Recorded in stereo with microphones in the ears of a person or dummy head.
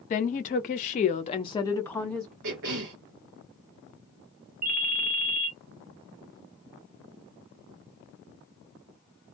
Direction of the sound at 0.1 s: 40° left (ahead or behind).